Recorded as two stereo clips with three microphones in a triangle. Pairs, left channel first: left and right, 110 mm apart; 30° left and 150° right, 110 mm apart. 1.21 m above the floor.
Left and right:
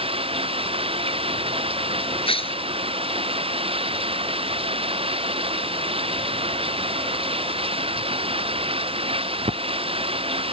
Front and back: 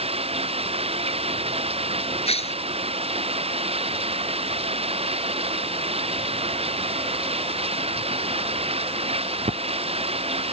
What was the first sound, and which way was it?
Running water, 125° right.